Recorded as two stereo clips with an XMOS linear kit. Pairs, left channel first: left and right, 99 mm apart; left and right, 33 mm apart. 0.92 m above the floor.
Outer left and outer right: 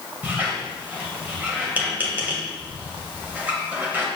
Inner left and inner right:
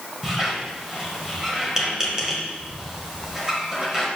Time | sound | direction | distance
0.2 | a squeak | 20° right (ahead or behind) | 1.9 m